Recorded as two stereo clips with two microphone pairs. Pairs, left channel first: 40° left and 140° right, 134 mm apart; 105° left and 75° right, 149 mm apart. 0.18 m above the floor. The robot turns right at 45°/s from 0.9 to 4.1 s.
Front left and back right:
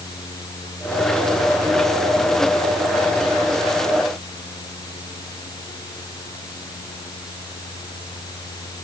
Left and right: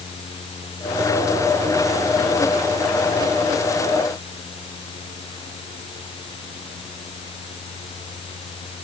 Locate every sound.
Only background noise.